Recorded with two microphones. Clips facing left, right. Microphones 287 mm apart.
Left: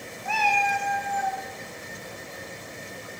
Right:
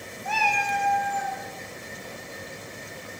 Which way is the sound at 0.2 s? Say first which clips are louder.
Left 2 dB; 10° left (ahead or behind).